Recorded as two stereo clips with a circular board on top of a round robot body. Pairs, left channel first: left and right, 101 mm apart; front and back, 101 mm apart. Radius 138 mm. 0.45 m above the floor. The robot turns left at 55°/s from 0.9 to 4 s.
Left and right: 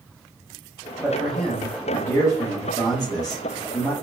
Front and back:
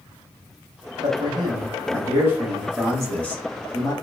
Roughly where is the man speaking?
Behind.